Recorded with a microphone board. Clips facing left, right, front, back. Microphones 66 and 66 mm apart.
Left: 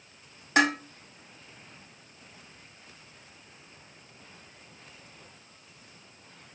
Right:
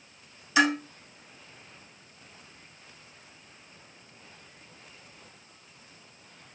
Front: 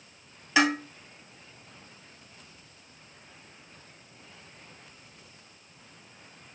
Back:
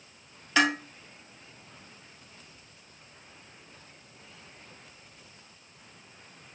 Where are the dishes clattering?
75° left, 1.5 m.